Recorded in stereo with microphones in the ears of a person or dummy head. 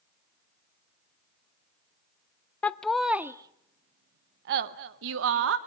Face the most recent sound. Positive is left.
turn(degrees=-70)  # may be behind; listen again after turning